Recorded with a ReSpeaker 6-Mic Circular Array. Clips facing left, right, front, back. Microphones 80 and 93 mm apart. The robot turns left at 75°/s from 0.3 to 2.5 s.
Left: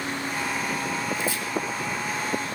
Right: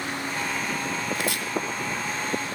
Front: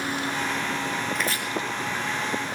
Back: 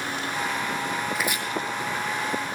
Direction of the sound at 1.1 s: 95° right.